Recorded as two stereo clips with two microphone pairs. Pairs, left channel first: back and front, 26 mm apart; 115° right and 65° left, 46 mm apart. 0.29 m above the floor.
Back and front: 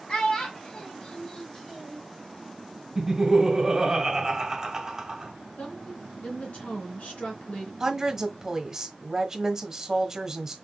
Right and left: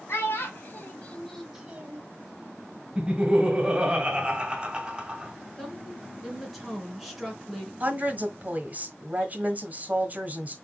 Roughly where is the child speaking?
Behind right.